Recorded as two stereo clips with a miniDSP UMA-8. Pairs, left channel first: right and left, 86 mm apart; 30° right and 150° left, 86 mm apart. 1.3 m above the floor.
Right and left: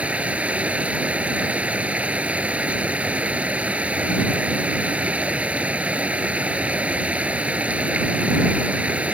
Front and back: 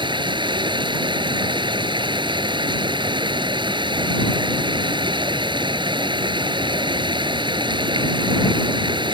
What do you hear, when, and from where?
0.0 s running water: 165° left